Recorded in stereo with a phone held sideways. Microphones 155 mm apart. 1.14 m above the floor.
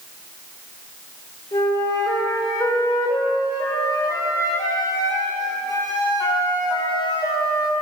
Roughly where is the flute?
Left.